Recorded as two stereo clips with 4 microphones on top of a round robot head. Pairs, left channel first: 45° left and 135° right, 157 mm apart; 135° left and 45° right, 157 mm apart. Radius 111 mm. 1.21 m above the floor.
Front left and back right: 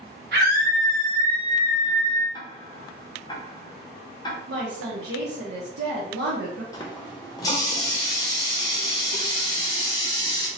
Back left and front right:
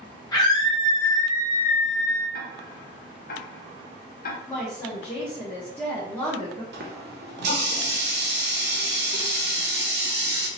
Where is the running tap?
25° right, 0.6 m.